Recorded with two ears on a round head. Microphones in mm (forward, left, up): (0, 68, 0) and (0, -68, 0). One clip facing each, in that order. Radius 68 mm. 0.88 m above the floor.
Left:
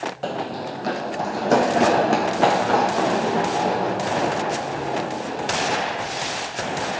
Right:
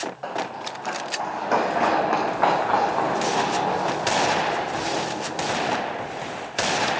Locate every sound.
0.2 s running footsteps: 40° left (ahead or behind), 1.1 m; by 5.5 s 25° left (ahead or behind), 6 m